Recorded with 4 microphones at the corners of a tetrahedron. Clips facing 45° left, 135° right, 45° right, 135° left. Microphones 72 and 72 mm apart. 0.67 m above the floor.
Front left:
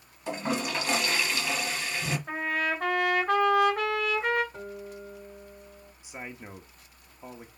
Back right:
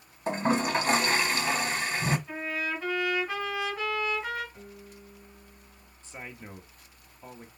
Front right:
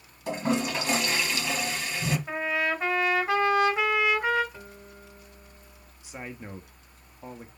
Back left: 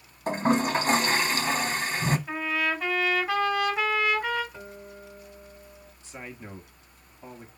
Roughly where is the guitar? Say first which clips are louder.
Front left 8 dB, back left 3 dB; ahead left.